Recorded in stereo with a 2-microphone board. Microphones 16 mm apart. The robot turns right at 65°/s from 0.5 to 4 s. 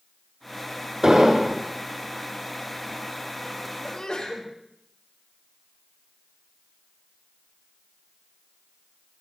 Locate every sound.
1.0 s an explosion: 140° right, 4 m; by 1.6 s 100° right, 4 m
3.8 s a sneeze: 45° left (ahead or behind), 6.5 m; by 4.5 s 55° left (ahead or behind), 6.5 m